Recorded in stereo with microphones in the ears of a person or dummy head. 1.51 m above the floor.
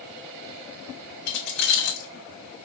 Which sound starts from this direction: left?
Keys jangling, at 1.3 s.